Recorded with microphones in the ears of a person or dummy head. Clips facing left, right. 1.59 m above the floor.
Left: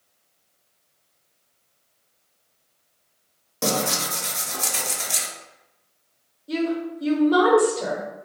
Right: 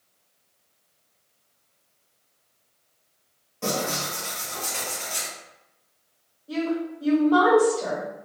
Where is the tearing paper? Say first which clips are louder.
Left 3 dB; 75° left (ahead or behind), 0.7 m.